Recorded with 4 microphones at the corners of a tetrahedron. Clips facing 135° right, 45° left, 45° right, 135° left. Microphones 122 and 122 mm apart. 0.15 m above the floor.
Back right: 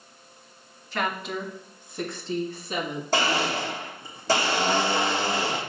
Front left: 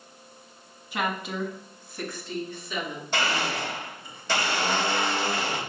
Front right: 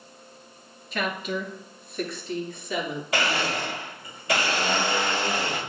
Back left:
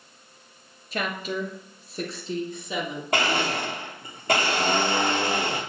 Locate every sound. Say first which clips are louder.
0.9 s a woman speaking: back right 1 dB, even; 115° left, 1.7 m; by 3.0 s 160° right, 2 m
3.1 s a blender: back right 3 dB, back left 2 dB; 175° left, 3 m